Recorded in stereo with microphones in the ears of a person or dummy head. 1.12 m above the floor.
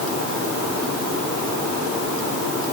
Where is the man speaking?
No man speaking in this recording.